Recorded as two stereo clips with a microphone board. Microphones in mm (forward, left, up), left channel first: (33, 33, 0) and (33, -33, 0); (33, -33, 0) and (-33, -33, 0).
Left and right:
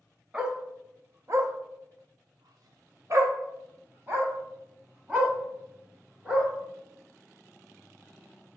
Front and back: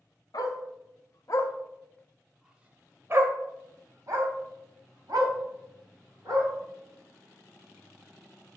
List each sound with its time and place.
0.3 s a dog barking: 20° right, 1.1 m; by 6.5 s 155° right, 2.5 m